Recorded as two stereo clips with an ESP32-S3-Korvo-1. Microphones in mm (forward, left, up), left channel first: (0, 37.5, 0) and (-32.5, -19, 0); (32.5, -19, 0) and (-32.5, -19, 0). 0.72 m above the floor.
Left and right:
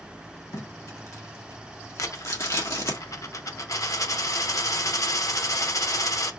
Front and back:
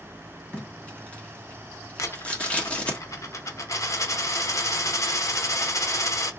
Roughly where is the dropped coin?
Ahead left.